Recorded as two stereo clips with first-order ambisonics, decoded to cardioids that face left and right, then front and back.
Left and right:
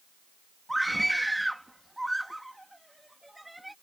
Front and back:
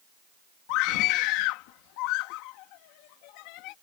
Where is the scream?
5° right.